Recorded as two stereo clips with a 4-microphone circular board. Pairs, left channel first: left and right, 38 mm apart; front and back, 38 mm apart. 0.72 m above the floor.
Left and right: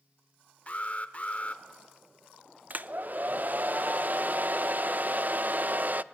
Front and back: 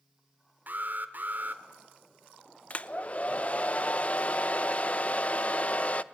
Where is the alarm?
140° left, 1.8 m.